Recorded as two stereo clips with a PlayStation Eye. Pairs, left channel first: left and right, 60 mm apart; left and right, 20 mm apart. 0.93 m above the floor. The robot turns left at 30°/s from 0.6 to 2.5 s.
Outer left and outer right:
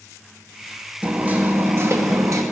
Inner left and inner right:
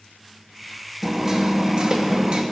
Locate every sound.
1.0 s hammering: 20° right, 1.1 m; by 2.4 s 65° right, 1.1 m